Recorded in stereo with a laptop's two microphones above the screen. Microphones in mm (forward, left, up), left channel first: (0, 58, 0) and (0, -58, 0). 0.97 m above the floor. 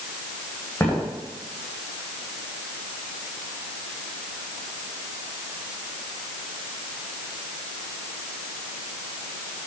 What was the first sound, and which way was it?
Footsteps, 15° left (ahead or behind).